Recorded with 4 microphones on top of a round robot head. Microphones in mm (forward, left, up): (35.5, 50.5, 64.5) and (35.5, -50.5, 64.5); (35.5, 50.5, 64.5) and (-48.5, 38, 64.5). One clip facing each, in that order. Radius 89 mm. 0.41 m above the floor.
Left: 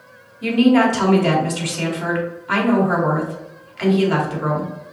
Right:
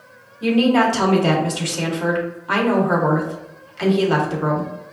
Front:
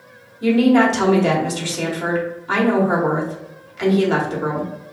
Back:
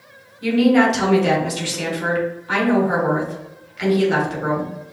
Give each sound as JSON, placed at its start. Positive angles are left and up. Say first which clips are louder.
{"t": 0.4, "sound": "a woman speaking", "louder": "left 1 dB, front 1 dB", "azimuth_deg": -40, "distance_m": 1.8}